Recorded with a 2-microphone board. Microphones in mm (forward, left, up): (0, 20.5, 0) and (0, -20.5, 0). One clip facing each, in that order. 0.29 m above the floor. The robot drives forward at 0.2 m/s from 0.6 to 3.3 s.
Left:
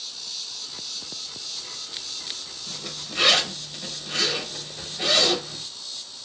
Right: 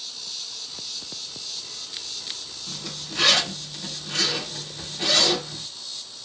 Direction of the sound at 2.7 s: 25° left (ahead or behind).